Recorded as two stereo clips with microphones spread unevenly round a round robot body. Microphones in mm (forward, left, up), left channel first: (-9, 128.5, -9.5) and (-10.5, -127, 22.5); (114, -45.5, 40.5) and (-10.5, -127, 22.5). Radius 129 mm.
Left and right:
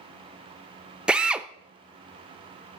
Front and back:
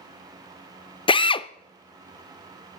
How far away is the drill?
About 0.6 m.